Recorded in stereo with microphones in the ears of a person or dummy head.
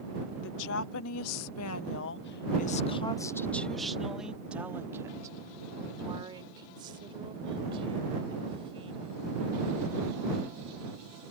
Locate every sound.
0.4 s a woman speaking: 70° left (ahead or behind); by 9.2 s 25° right (ahead or behind)